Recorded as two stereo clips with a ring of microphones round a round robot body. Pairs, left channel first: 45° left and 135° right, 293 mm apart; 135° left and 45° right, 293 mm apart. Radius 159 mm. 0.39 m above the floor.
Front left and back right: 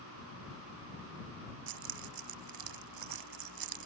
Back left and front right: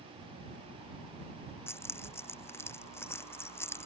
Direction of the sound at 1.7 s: 145° right.